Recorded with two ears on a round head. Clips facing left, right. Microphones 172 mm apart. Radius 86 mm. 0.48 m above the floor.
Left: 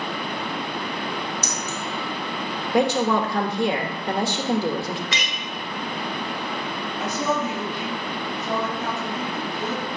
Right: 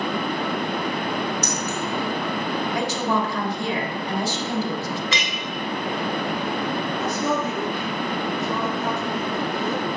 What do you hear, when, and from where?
1.4 s keys jangling: 60° left (ahead or behind), 1.6 m
2.7 s a woman speaking: 50° left (ahead or behind), 1.1 m
5.1 s a clink: 65° right (ahead or behind), 1.1 m
7.0 s a woman speaking: 65° left (ahead or behind), 3 m